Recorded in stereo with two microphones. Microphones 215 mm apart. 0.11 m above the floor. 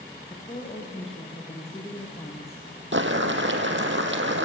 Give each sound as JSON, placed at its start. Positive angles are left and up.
{"t": 0.3, "sound": "a woman speaking", "side_deg": 30, "distance_m": 3.0}
{"t": 2.9, "sound": "boiling", "side_deg": -60, "distance_m": 2.0}